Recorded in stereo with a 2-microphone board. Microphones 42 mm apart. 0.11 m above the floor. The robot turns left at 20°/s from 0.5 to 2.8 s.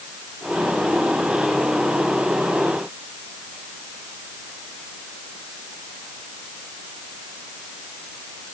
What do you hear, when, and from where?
Only background noise.